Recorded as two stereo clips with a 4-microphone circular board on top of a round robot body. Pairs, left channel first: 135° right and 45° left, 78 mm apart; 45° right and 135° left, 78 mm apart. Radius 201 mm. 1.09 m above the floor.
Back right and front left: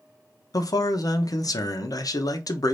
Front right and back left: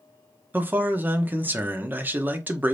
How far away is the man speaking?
About 0.8 m.